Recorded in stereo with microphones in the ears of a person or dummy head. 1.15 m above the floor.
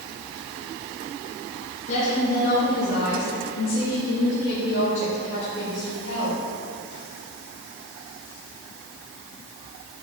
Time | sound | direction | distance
1.9 | a woman speaking | 40° left (ahead or behind) | 1.4 m